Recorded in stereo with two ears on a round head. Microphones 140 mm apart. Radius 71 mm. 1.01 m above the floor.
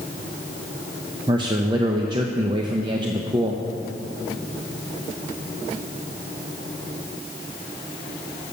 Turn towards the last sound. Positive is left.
turn(degrees=-30)  # may be behind; listen again after turning